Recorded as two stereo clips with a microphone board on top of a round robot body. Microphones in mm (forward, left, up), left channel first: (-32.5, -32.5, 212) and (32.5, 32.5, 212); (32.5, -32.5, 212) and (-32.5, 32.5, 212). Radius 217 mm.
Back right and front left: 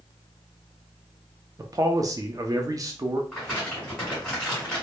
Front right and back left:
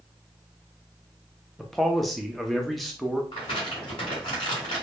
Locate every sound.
1.6 s a man speaking: 45° left, 0.6 m
3.3 s crumpling: 45° right, 1.2 m